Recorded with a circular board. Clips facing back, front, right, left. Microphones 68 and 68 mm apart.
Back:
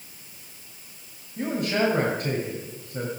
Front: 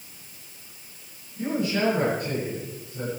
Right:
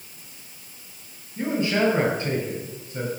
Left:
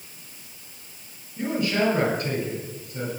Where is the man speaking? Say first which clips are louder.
Back 1 dB, right 1 dB; 155° right, 8 m.